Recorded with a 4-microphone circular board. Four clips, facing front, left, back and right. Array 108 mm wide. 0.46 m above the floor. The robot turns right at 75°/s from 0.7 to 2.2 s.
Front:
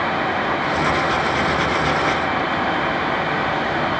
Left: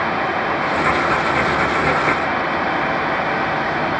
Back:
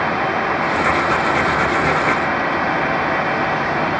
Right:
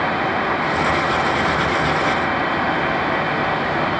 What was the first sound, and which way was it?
Only background noise.